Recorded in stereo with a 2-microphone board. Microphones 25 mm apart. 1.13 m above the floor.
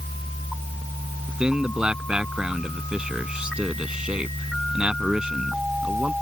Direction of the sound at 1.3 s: 35° right (ahead or behind).